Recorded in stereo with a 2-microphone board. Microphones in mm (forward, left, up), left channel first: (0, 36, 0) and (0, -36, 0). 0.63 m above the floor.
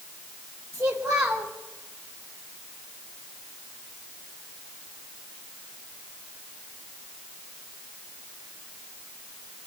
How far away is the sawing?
I don't hear sawing.